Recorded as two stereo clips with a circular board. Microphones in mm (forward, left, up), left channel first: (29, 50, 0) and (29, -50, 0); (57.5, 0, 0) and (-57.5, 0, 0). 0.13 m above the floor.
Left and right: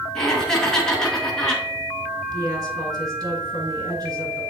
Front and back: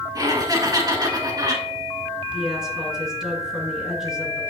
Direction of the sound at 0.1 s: 170° left.